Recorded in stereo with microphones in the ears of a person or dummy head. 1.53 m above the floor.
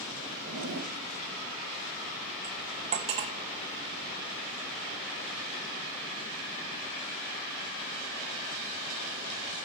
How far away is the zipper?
About 1.5 m.